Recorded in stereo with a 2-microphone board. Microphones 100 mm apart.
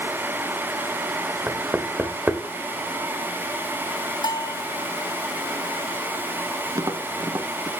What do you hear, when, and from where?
1.5 s knocking: 15° right (ahead or behind), 1.7 m
4.2 s a bell: 45° left (ahead or behind), 1.1 m
6.8 s tapping: 35° right (ahead or behind), 0.9 m